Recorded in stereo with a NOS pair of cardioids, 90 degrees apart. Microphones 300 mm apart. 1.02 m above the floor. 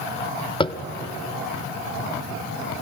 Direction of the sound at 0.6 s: 15° left.